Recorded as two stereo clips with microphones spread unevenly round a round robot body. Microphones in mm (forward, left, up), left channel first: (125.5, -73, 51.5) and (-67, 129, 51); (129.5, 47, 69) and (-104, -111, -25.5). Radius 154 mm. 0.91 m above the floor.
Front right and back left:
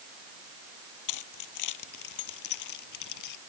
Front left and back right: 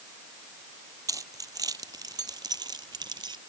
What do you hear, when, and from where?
1.1 s keys jangling: 70° right